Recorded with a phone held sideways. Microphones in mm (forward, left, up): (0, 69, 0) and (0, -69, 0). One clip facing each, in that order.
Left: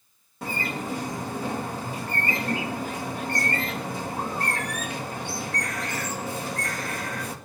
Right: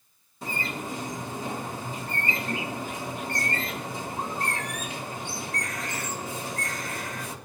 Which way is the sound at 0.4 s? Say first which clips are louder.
Left 3 dB; 60° left (ahead or behind).